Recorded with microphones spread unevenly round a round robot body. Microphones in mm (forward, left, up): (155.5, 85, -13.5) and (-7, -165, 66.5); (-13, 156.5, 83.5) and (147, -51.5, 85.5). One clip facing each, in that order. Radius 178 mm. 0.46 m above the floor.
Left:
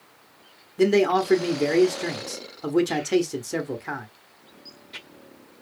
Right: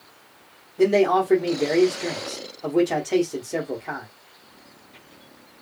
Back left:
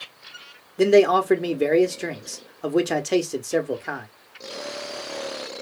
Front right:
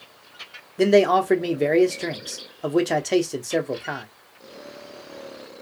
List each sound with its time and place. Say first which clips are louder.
0.8 s a man speaking: right 1 dB, back left 1 dB; 45° left, 1.2 m